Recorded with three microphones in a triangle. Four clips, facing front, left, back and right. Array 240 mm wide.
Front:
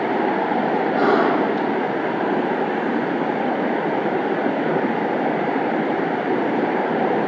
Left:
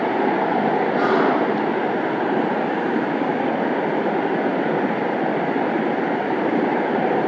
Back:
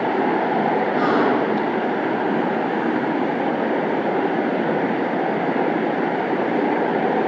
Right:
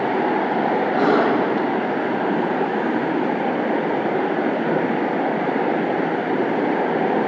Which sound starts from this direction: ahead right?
A gasp, at 0.9 s.